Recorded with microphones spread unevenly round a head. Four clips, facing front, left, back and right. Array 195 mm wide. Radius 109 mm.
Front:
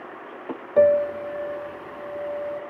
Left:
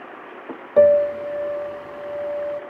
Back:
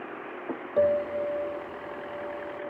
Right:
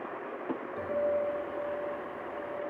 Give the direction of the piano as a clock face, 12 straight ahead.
9 o'clock.